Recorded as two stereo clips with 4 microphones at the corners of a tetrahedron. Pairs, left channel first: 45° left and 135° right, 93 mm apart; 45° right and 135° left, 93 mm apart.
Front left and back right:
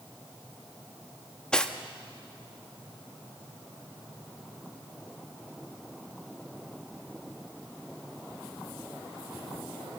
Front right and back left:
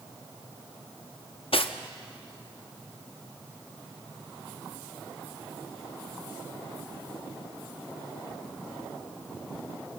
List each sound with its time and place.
1.5 s cutlery clinking: 35° right, 0.9 m